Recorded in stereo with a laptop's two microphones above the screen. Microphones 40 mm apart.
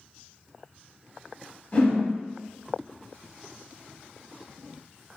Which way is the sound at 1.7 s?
35° left (ahead or behind).